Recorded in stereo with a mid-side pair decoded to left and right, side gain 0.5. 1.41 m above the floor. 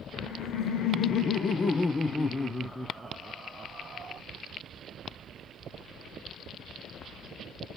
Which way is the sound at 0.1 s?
65° left.